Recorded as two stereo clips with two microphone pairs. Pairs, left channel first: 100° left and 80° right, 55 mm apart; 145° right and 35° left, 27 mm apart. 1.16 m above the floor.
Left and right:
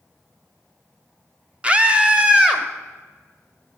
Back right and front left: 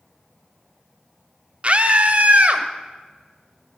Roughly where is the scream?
Ahead.